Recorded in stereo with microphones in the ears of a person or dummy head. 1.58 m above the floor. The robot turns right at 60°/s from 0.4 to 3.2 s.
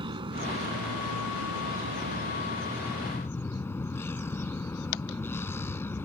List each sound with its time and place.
0.0 s a vehicle: 150° right; by 6.1 s 15° left